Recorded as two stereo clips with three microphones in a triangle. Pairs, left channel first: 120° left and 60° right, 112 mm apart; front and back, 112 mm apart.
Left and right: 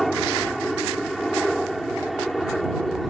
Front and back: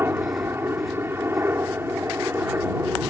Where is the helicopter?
155° right.